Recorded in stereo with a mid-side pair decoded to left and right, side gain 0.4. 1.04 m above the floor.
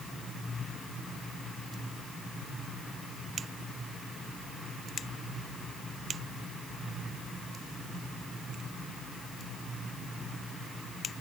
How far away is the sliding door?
I don't hear a sliding door.